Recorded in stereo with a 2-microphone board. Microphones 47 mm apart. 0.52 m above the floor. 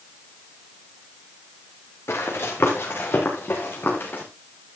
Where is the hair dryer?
I don't hear a hair dryer.